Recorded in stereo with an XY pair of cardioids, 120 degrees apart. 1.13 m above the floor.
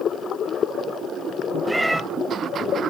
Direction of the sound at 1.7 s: 10° right.